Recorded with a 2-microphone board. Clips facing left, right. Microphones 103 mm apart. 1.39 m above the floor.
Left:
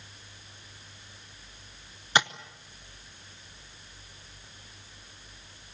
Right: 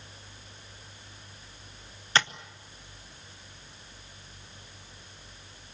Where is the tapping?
15° left (ahead or behind), 0.8 m.